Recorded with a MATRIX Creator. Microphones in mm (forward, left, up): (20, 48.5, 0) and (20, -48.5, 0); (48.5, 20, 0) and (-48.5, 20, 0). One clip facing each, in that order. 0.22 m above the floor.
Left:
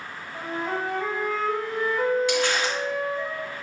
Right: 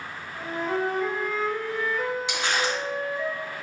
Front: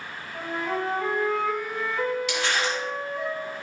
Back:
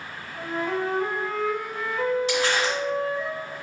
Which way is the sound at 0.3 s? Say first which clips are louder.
Right 1 dB, back 1 dB; 65° left.